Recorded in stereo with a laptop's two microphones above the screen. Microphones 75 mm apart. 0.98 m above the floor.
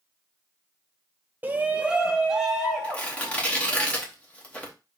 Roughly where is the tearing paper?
Centre.